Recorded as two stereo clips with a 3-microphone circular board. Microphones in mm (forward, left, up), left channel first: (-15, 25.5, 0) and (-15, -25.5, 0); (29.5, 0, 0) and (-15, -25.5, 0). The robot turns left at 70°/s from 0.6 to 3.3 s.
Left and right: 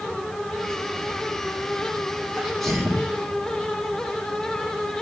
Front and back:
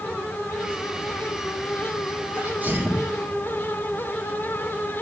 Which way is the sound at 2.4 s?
160° right.